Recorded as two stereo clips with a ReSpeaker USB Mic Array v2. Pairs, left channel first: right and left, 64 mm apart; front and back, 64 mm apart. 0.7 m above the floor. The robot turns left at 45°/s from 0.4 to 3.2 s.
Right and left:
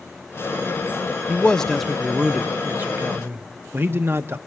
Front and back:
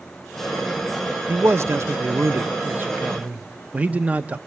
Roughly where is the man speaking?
Behind right.